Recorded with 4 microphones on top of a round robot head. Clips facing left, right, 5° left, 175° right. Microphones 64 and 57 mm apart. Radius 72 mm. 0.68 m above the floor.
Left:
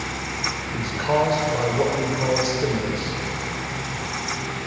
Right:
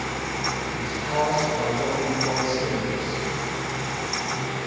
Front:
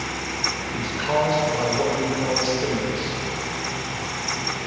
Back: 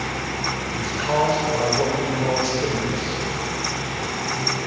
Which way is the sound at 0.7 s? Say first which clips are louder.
Left 7 dB, back 1 dB; 100° left.